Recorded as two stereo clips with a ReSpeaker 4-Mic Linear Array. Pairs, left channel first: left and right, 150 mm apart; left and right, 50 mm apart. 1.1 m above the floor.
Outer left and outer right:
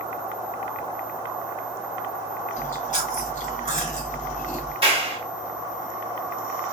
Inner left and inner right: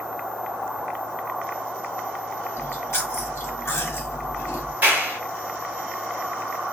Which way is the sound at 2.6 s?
55° left (ahead or behind).